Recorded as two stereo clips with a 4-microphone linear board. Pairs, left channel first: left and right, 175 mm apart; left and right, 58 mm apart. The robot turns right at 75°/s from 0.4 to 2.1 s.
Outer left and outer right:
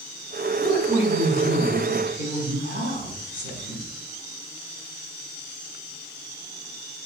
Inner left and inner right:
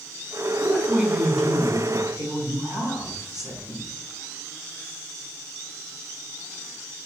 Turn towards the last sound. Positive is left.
turn(degrees=-95)